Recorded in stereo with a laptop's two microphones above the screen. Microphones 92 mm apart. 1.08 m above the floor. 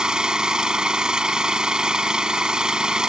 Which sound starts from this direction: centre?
An engine running, at 0.0 s.